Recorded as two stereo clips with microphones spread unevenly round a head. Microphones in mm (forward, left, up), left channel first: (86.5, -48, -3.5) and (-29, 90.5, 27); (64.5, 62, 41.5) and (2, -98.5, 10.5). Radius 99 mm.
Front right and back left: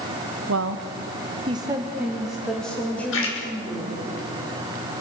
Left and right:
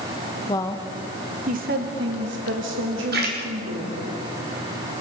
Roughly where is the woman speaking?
Behind left.